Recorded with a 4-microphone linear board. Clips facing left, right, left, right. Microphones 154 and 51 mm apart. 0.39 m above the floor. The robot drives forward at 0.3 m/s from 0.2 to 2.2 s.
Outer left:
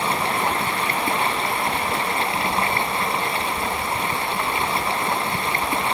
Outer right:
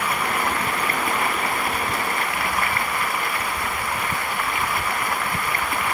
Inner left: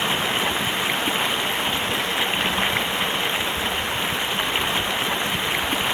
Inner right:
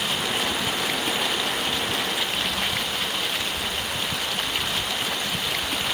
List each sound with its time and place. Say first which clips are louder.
0.0 s running water: outer left 2 dB, inner left 3 dB; 25° left (ahead or behind)